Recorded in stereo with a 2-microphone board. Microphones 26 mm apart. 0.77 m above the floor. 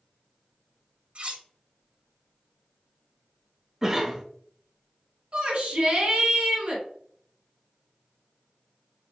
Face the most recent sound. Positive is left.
turn(degrees=-50)  # may be behind; listen again after turning